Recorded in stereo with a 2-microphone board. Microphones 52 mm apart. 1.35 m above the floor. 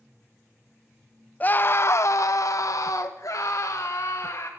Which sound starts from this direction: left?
A scream, at 1.4 s.